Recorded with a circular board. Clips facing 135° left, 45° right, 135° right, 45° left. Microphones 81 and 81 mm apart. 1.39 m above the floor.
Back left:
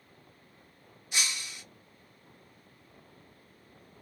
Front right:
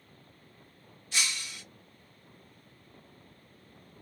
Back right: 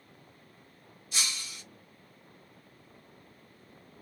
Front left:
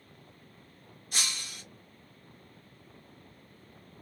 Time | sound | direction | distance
1.1 | breaking glass | 60° left | 0.9 m